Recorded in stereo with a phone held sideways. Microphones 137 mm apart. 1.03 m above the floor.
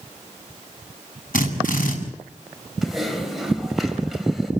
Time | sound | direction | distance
1.3 | a drill | 85° left | 6.5 m
2.8 | typing on a keyboard | centre (ahead or behind) | 4 m